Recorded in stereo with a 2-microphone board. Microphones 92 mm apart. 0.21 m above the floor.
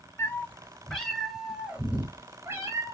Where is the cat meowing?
25° left (ahead or behind), 1.6 m; by 2.9 s 35° right (ahead or behind), 1.8 m.